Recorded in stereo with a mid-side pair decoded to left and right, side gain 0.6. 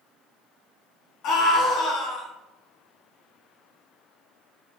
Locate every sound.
1.2 s a scream: 65° left, 1.3 m